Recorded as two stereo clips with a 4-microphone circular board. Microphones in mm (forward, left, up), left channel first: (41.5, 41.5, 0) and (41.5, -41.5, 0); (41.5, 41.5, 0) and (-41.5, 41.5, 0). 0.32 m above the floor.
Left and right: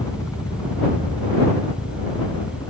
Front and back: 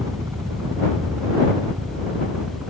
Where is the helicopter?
130° left; by 2.7 s 105° left.